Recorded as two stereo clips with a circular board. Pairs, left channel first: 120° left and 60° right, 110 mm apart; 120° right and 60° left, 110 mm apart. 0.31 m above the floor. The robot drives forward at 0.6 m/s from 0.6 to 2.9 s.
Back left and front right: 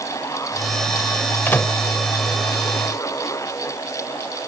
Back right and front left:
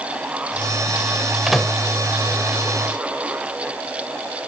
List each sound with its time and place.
1.5 s a microwave: 145° left; by 1.8 s 160° left